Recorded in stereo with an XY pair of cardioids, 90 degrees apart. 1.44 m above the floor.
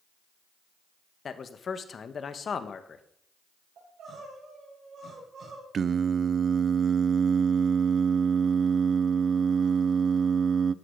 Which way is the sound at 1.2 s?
50° left.